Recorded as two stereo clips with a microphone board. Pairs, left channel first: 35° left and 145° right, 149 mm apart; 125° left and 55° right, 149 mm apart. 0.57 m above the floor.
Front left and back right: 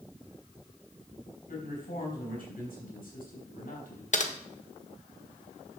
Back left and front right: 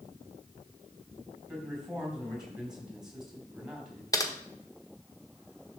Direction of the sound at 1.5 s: 30° left.